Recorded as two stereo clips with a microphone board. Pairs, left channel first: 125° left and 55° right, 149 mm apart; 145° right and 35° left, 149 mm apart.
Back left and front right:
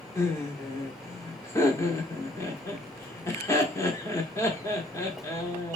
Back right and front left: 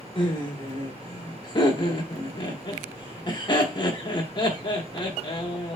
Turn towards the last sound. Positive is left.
turn(degrees=-175)